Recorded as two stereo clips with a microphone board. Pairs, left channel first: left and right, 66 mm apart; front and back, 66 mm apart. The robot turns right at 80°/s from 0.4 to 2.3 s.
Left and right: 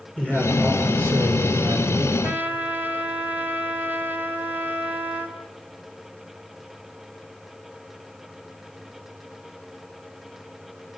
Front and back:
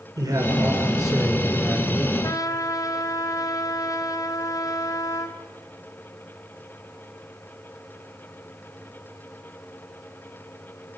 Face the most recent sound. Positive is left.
turn(degrees=-30)